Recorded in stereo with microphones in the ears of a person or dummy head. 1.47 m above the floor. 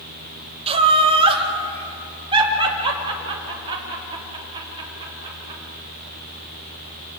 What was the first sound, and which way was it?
Laughter, 30° right (ahead or behind).